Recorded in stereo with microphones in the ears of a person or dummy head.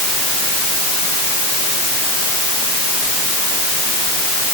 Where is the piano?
I don't hear a piano.